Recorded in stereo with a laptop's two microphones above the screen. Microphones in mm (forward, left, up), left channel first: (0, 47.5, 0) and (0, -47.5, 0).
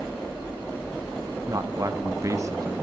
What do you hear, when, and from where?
1.5 s a man speaking: 35° right (ahead or behind), 0.6 m